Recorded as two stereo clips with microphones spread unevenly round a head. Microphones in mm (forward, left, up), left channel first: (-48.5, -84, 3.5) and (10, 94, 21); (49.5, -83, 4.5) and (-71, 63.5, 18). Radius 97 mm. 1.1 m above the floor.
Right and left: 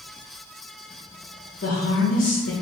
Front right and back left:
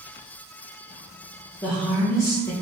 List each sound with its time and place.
1.6 s a woman speaking: 125° right, 0.9 m